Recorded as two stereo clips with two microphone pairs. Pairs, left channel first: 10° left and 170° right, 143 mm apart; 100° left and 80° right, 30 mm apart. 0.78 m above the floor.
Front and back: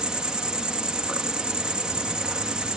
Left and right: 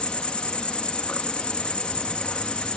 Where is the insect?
110° left, 1.5 m.